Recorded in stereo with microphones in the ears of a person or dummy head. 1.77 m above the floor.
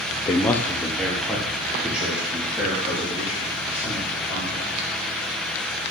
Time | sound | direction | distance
0.1 | a man speaking | 25° left (ahead or behind) | 0.6 m